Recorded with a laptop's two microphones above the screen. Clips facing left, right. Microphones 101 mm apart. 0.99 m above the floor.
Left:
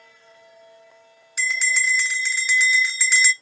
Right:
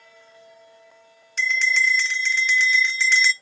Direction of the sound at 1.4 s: 5° left (ahead or behind).